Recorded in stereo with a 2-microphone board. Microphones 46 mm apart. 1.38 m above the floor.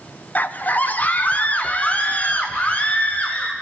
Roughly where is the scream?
Left.